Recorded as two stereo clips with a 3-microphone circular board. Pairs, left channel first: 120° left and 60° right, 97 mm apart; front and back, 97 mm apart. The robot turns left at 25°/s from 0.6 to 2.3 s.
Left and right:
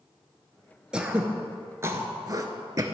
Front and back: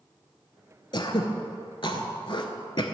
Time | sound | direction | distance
0.9 | throat clearing | 20° left | 0.7 m